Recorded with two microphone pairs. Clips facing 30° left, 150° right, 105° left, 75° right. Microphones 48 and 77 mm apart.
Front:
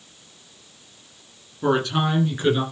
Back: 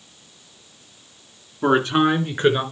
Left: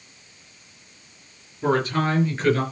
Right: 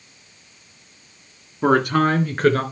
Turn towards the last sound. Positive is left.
turn(degrees=-100)